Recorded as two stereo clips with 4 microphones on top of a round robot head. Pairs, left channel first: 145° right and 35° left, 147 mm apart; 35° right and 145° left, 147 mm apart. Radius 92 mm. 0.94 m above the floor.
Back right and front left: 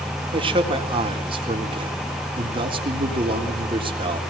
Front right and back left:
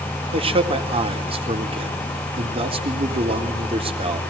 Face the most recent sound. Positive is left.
turn(degrees=90)